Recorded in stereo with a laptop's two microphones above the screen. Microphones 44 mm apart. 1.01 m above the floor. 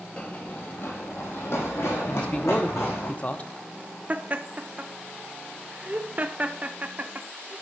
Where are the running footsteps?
25° left (ahead or behind), 1.3 m; by 3.1 s 70° left (ahead or behind), 5 m.